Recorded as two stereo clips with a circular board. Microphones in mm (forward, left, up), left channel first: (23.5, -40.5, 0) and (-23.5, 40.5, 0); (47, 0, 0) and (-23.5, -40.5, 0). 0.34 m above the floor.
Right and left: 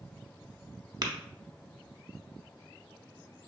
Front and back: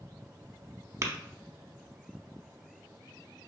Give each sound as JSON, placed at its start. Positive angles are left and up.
{"t": 1.0, "sound": "tapping", "azimuth_deg": 160, "distance_m": 0.7}